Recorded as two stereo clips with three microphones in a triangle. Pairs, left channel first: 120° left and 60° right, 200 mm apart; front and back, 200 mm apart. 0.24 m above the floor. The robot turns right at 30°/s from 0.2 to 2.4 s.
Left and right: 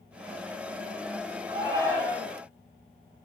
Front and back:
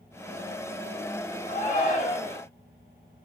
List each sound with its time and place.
1.5 s a shout: 5° right, 1.4 m; by 2.4 s 20° left, 1.4 m